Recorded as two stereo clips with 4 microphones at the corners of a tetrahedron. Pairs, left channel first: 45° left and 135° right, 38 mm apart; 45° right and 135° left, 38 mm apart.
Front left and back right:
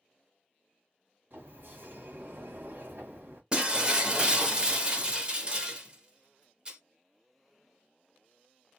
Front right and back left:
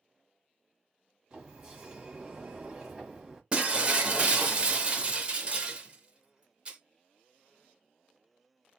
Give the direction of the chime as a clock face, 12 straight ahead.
I don't hear a chime.